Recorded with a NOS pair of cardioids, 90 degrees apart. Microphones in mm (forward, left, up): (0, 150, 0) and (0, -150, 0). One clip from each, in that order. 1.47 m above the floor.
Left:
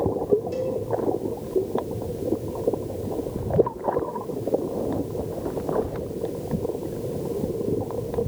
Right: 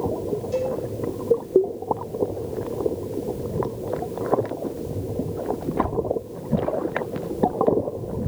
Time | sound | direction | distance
0.5 | a cowbell | 20° left | 4 m